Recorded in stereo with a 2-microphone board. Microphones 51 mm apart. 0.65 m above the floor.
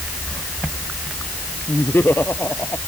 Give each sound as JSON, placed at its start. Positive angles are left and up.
{"t": 1.7, "sound": "laughter", "side_deg": 45}